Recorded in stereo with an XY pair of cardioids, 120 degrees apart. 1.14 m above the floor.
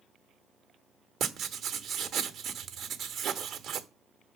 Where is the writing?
60° right, 1.0 m.